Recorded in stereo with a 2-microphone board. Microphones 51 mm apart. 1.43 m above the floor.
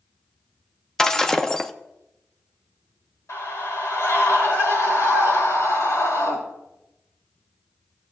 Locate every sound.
1.0 s breaking glass: 10° left (ahead or behind), 0.5 m
3.3 s a scream: 70° left (ahead or behind), 3.5 m